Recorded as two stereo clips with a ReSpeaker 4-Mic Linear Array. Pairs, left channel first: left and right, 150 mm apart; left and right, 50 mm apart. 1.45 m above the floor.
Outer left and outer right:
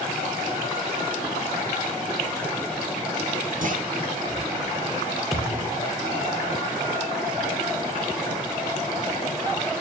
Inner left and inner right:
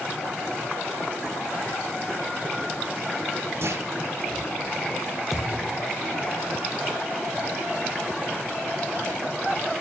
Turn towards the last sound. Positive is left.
turn(degrees=0)  # may be behind; listen again after turning